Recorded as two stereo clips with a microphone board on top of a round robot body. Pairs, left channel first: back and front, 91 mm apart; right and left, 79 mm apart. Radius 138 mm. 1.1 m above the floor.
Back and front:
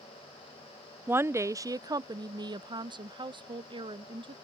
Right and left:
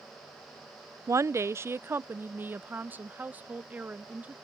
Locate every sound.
1.1 s a woman speaking: 60° left; by 4.3 s 20° left